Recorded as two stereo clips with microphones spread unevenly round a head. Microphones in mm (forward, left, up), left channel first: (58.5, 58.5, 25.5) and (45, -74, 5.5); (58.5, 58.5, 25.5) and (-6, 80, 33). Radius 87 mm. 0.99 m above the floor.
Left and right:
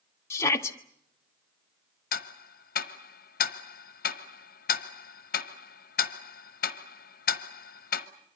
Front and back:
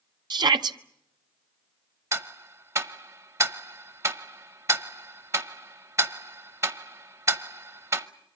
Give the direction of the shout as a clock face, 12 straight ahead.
7 o'clock.